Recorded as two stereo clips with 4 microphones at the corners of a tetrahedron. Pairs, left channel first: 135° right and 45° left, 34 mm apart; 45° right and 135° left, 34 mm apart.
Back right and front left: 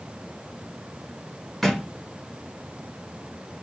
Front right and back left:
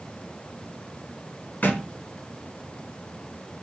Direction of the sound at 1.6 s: 55° right.